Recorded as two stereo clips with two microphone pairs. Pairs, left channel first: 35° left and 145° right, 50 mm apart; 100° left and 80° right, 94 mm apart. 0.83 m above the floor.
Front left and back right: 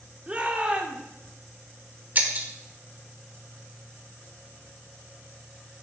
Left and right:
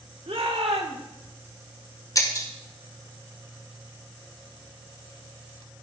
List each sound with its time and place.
0.3 s a shout: 80° right, 2 m
2.1 s breaking glass: 155° left, 1.5 m